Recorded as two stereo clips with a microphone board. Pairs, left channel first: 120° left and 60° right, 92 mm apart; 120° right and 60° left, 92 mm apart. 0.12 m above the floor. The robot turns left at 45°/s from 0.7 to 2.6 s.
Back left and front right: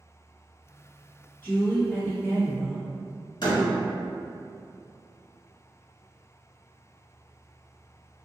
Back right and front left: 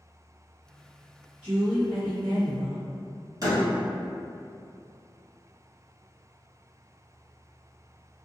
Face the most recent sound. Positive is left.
turn(degrees=100)